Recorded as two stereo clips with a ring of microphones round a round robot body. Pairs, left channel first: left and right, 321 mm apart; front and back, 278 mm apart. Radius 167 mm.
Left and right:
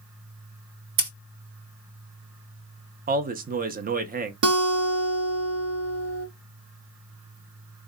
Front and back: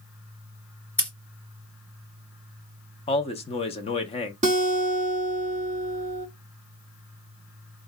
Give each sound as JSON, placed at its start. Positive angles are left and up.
{"t": 1.0, "sound": "scissors", "azimuth_deg": -85, "distance_m": 3.0}
{"t": 3.1, "sound": "a man speaking", "azimuth_deg": -50, "distance_m": 0.6}
{"t": 4.4, "sound": "a guitar", "azimuth_deg": -120, "distance_m": 0.8}